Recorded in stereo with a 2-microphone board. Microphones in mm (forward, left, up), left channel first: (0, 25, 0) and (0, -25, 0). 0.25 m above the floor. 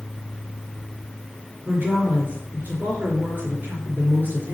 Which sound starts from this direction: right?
A woman speaking, at 1.6 s.